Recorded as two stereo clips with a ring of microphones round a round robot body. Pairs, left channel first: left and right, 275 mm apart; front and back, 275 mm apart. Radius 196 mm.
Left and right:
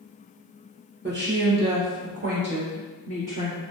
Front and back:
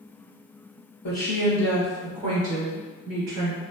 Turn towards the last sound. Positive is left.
turn(degrees=-160)